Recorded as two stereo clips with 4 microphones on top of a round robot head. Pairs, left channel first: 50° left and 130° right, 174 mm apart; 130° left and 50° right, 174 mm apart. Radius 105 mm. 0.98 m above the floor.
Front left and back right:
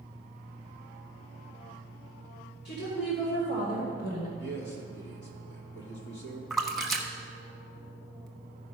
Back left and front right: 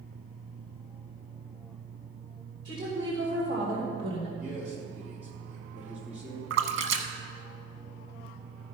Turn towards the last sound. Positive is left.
turn(degrees=-40)